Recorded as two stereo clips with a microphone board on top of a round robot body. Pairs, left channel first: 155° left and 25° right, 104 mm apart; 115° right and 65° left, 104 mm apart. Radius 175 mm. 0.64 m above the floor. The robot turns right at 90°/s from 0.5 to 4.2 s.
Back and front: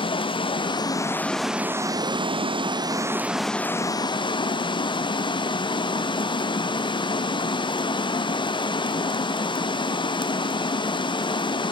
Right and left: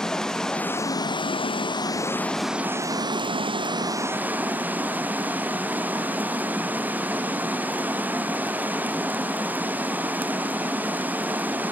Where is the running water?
165° left, 0.9 m; by 11.7 s 135° left, 0.9 m.